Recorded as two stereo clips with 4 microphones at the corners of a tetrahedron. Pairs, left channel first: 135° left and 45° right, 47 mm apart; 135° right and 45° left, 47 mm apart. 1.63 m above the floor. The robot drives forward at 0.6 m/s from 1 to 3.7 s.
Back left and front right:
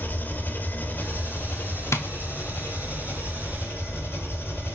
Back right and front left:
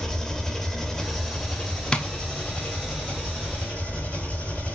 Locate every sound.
0.0 s an engine running: 155° left, 1.4 m; by 4.8 s 170° left, 2.5 m
1.9 s tapping: 155° left, 0.8 m; by 2.1 s 160° left, 0.9 m